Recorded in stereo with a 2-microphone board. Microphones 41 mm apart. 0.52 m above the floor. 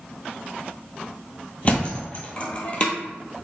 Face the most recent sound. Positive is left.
turn(degrees=30)  # may be behind; listen again after turning